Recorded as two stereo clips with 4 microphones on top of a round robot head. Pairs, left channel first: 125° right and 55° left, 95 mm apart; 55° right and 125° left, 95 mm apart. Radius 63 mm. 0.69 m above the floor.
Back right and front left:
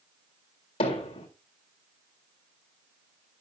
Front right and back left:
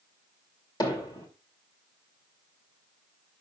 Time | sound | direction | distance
0.8 | hammering | 100° right | 3 m